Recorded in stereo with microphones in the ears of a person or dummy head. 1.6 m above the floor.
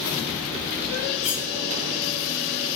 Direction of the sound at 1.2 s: 35° left (ahead or behind).